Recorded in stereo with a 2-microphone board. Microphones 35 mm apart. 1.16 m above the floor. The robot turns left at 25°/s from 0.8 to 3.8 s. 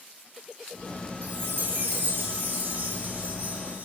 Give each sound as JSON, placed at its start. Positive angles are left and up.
{"t": 1.2, "sound": "a chime", "azimuth_deg": -75, "distance_m": 3.0}